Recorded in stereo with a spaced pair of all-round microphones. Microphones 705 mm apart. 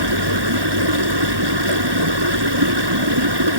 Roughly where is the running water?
Right.